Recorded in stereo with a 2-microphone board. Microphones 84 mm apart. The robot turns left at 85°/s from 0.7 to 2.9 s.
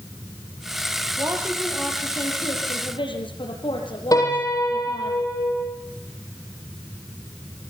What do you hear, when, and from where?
1.2 s a woman speaking: 135° right, 5.5 m; by 5.1 s 80° left, 5.5 m
4.1 s a piano: 45° left (ahead or behind), 8.5 m